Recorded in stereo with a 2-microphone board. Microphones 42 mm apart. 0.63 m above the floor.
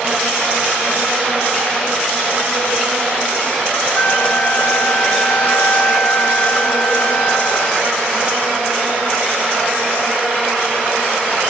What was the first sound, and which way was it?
A flute, 60° left (ahead or behind).